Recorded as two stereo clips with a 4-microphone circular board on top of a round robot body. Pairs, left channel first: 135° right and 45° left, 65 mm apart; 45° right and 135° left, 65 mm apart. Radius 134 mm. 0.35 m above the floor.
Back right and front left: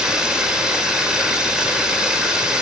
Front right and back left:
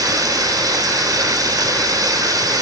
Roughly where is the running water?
Behind left.